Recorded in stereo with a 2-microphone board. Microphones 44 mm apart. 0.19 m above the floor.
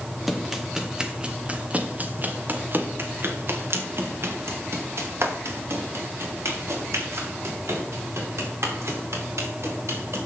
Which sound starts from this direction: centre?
Running footsteps, at 0.3 s.